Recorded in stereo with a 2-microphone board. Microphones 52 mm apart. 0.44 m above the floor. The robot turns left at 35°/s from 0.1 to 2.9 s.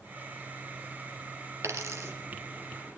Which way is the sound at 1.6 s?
70° right (ahead or behind).